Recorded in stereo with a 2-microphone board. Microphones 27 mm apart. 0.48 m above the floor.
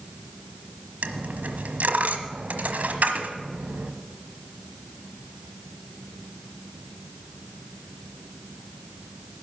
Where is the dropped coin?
75° right (ahead or behind), 1.1 m.